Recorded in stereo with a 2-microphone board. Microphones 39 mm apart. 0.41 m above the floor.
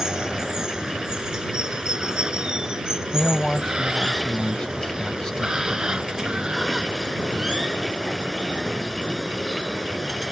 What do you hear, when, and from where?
0.0 s running water: 15° right (ahead or behind)
3.1 s a man speaking: 20° left (ahead or behind)